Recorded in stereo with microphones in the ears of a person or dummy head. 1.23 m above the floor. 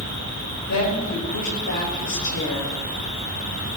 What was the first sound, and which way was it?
A woman speaking, 65° left (ahead or behind).